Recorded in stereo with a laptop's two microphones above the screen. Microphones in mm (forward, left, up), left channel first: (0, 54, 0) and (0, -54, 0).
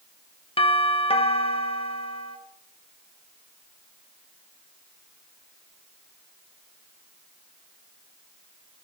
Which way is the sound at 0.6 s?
60° left (ahead or behind).